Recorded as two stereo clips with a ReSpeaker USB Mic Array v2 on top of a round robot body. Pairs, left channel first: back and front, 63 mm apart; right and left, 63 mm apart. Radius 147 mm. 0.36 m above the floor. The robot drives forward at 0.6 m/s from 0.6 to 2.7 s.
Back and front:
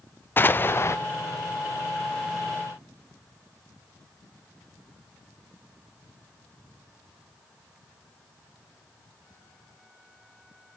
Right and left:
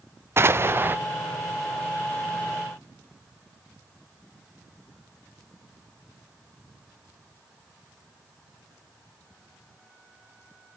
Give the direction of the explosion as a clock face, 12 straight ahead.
8 o'clock.